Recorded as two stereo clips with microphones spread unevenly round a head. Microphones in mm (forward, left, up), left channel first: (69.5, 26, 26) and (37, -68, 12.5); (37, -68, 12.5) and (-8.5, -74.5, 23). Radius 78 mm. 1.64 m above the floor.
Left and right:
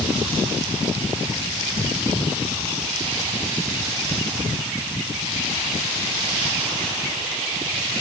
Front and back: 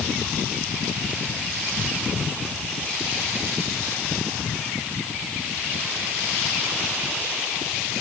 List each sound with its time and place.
Only background noise.